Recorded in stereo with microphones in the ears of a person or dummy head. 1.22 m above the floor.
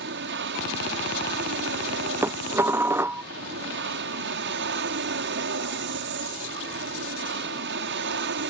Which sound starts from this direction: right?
An aircraft, at 0.0 s.